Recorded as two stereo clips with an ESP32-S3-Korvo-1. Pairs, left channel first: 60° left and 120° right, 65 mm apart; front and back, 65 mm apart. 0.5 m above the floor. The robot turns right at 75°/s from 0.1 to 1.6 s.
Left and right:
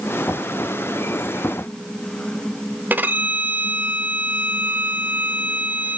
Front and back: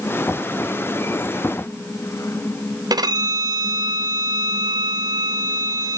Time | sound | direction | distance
2.9 | a violin | straight behind | 0.6 m